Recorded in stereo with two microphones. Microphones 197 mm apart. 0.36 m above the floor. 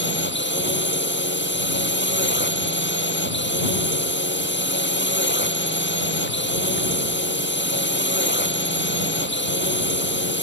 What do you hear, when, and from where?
0.0 s a drone: 70° left (ahead or behind)